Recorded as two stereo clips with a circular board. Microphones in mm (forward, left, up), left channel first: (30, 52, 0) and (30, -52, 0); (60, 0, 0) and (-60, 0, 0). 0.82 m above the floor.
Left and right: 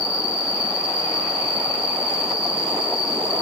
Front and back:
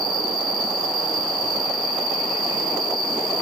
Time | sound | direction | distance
0.0 | an insect | 125° right | ?